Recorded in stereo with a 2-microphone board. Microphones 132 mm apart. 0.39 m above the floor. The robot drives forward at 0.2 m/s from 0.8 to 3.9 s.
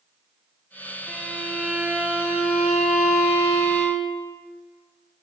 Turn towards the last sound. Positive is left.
turn(degrees=0)  # may be behind; listen again after turning